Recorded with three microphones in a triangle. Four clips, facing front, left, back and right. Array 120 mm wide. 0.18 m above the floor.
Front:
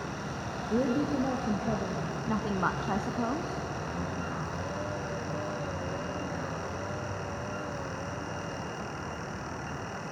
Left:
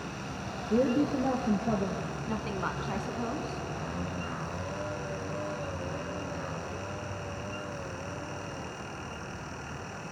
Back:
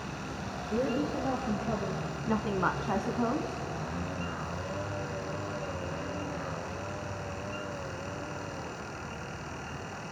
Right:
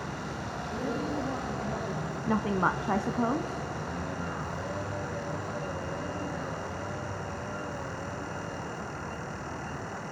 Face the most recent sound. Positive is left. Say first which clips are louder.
# right 8 dB, back 1 dB
turn(degrees=-85)